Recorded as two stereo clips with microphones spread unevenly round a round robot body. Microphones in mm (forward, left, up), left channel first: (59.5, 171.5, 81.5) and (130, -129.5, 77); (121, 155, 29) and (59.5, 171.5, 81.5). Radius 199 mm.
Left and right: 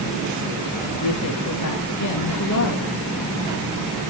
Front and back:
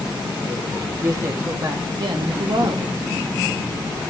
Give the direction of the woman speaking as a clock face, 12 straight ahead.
9 o'clock.